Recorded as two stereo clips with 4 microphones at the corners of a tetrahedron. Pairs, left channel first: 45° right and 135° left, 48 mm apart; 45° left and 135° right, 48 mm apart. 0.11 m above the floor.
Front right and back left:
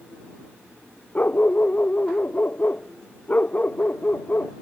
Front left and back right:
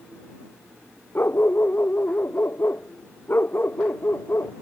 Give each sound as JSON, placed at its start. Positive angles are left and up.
{"t": 1.1, "sound": "a dog barking", "azimuth_deg": 5}